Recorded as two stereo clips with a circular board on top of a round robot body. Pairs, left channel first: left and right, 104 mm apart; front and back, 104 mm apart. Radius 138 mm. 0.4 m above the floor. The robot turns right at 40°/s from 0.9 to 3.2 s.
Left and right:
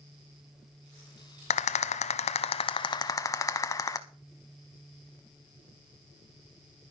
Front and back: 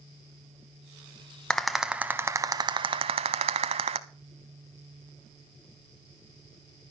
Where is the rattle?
80° left, 0.5 m; by 4.0 s 150° left, 0.5 m.